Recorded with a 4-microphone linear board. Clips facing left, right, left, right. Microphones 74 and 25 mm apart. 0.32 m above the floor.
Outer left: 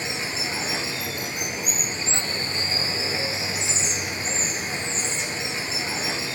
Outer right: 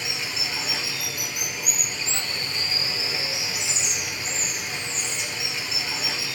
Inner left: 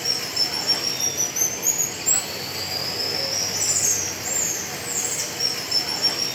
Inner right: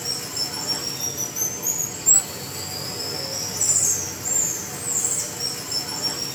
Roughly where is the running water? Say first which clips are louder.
Outer left 3 dB, inner left 4 dB; left.